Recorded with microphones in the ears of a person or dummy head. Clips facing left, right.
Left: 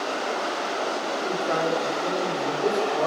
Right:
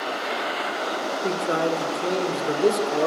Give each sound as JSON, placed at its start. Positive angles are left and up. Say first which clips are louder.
{"t": 1.2, "sound": "a man speaking", "louder": "right 2 dB", "side_deg": -35, "distance_m": 5.0}